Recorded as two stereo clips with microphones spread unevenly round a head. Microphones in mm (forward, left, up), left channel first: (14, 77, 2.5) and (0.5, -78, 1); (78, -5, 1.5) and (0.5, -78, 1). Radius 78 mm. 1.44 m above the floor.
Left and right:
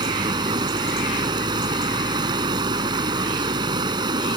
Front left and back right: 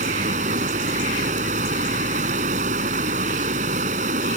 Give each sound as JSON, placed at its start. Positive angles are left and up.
{"t": 0.0, "sound": "running water", "azimuth_deg": -160}